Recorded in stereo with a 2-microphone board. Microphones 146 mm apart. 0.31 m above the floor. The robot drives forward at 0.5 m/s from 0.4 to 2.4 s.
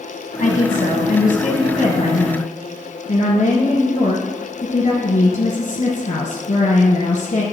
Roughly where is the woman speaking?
Left.